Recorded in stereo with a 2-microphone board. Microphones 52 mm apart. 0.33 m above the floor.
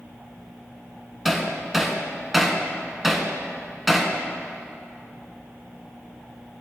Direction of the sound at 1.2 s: Centre (ahead or behind).